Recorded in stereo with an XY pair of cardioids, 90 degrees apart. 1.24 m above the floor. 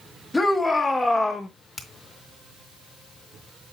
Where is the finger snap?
25° left, 2 m.